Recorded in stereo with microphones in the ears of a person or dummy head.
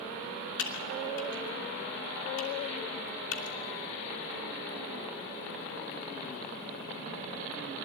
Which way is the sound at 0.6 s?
75° left (ahead or behind).